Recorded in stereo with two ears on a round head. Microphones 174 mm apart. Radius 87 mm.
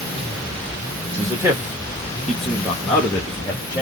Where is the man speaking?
15° right (ahead or behind), 1.2 m; by 3.8 s 20° left (ahead or behind), 1.4 m.